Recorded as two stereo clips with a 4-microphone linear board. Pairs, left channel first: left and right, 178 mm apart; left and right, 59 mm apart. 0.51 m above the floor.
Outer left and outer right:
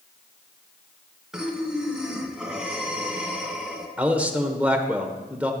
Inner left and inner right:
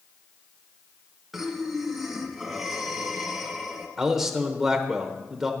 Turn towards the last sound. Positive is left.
turn(degrees=-10)  # may be behind; listen again after turning